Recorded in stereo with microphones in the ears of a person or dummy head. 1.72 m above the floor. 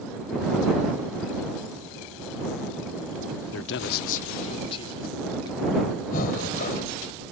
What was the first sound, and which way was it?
A man speaking, 70° left (ahead or behind).